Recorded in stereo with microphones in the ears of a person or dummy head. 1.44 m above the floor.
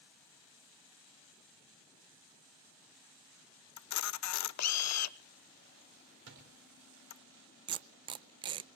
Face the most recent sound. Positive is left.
turn(degrees=-30)  # may be behind; listen again after turning